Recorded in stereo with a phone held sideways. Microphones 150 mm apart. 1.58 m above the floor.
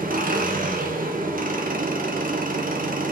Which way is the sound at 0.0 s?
70° right (ahead or behind).